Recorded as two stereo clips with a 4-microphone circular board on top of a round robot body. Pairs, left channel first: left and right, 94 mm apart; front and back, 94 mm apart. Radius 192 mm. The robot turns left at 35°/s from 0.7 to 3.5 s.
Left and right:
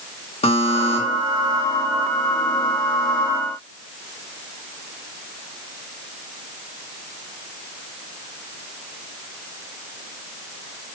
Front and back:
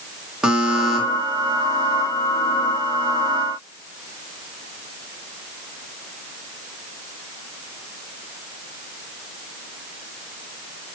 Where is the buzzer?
95° left, 1.2 m; by 1.0 s 85° left, 1.2 m.